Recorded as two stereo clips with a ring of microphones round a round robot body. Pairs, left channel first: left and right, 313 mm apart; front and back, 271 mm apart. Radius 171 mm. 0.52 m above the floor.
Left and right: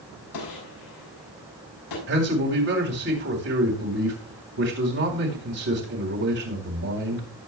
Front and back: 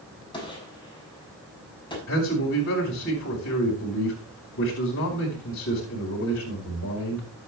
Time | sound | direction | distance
0.3 | a gunshot | 75° left | 7 m
2.1 | a man speaking | 45° right | 4 m